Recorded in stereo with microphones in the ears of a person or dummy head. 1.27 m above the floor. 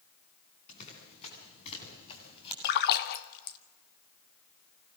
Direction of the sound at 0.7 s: 40° left (ahead or behind).